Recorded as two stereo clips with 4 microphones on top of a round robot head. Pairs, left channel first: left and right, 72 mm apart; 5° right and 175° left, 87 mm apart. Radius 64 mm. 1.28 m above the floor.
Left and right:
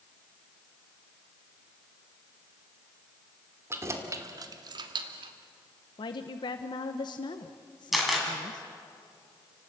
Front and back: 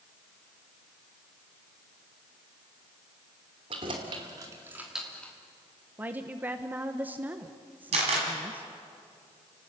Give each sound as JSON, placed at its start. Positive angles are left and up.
{"t": 3.7, "sound": "keys jangling", "azimuth_deg": -140, "distance_m": 2.5}
{"t": 6.0, "sound": "a woman speaking", "azimuth_deg": 105, "distance_m": 1.0}
{"t": 7.9, "sound": "a camera shutter", "azimuth_deg": 180, "distance_m": 6.0}